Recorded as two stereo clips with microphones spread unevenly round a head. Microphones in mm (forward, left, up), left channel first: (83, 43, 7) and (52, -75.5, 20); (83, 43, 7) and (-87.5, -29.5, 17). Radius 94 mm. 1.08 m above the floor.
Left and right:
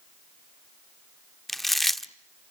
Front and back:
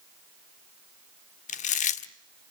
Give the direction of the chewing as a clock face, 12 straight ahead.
1 o'clock.